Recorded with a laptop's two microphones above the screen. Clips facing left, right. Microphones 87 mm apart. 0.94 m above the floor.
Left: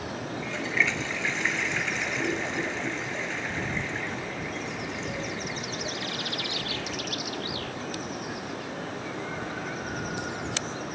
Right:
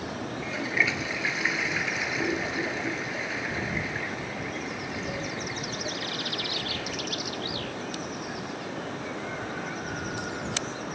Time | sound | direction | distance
0.4 | a toilet flushing | 5° right (ahead or behind) | ?